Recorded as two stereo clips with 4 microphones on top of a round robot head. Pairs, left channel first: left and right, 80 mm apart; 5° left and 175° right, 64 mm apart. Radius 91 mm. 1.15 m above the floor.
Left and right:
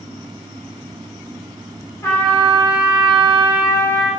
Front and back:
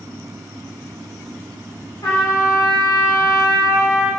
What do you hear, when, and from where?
2.0 s a trumpet: 35° left, 1.3 m